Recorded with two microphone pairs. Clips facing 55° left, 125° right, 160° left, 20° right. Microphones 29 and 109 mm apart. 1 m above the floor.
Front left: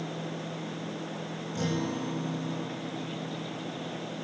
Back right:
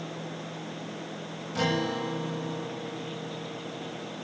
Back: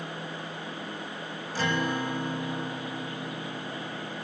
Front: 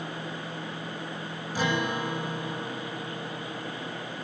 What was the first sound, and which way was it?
A guitar, 100° right.